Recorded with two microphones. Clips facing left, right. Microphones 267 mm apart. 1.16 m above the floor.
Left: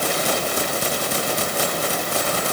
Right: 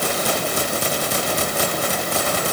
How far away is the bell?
No bell in this recording.